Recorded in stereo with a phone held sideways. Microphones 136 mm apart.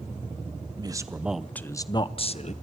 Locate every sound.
0.8 s a man speaking: 30° right (ahead or behind), 0.9 m; by 2.5 s 50° left (ahead or behind), 1.1 m